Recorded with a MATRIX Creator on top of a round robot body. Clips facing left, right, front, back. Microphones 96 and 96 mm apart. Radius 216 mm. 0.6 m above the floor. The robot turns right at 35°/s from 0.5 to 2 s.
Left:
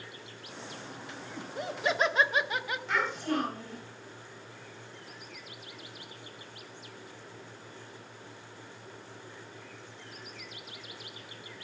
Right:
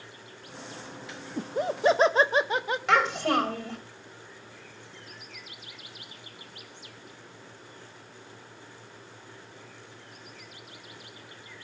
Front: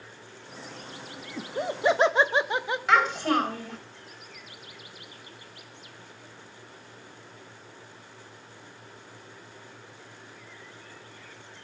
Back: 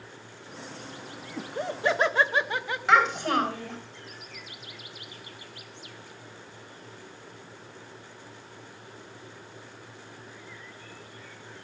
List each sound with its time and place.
1.4 s laughter: 80° right, 0.7 m; by 2.8 s 55° right, 0.7 m
2.9 s a child speaking: 85° right, 3 m